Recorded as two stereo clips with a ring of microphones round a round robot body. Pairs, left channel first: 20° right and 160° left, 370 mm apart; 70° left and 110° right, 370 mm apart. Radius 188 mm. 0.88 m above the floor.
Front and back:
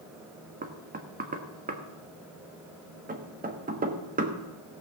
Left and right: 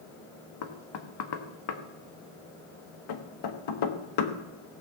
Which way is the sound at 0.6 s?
90° left.